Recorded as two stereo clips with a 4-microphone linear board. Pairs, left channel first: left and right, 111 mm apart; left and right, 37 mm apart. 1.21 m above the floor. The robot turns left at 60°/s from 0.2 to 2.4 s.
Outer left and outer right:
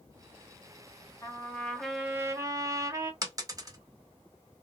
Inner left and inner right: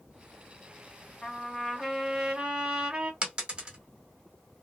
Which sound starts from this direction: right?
A dropped coin, at 3.2 s.